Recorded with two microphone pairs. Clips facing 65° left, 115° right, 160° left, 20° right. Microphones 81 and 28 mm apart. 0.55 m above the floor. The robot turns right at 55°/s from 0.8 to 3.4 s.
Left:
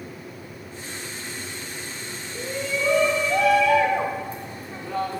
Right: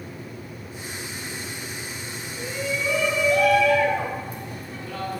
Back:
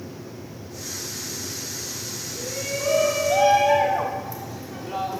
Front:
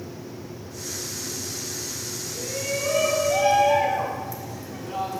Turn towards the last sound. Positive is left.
turn(degrees=110)